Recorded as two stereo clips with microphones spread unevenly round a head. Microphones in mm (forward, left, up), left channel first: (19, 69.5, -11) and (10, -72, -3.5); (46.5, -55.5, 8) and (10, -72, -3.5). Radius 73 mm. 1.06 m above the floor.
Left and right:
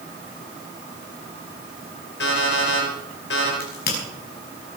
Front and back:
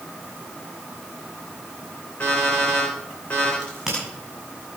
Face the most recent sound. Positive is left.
turn(degrees=115)